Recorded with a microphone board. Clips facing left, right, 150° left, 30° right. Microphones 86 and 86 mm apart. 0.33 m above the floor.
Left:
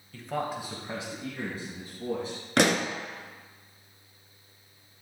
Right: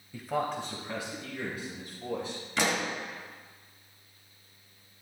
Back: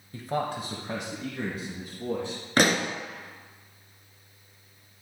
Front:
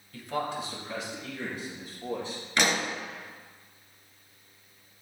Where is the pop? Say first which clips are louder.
Left 6 dB, back 4 dB; 105° left, 0.9 m.